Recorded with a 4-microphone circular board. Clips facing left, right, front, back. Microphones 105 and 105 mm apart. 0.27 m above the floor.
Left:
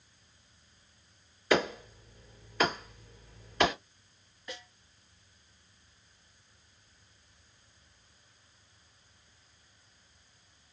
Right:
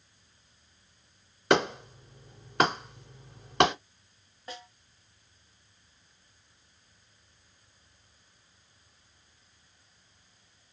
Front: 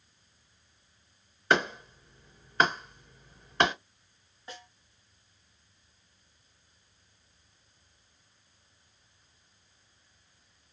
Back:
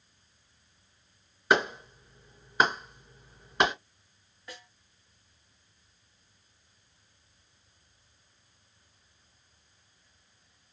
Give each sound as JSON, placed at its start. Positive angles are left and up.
{"t": 1.5, "sound": "a clap", "azimuth_deg": -100, "distance_m": 2.5}
{"t": 4.5, "sound": "a snare drum", "azimuth_deg": -55, "distance_m": 1.6}